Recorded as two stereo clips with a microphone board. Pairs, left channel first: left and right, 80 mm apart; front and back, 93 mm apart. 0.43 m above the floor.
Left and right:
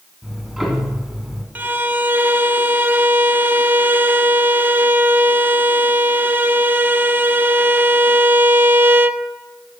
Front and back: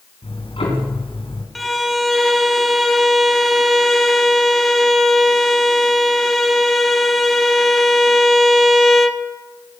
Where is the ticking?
5° right, 4 m.